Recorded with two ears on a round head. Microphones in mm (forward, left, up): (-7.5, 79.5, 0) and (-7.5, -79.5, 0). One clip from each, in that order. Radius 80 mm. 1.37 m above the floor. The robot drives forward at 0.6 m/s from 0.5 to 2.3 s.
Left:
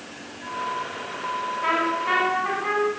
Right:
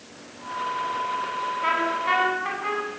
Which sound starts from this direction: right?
A trumpet, at 1.6 s.